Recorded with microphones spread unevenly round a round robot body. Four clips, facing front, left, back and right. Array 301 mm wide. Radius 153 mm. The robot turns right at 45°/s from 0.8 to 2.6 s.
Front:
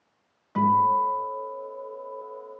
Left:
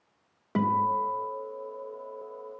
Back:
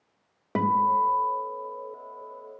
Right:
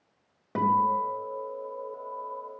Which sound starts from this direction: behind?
A guitar, at 0.6 s.